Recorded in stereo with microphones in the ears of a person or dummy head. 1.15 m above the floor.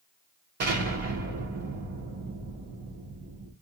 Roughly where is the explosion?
Right.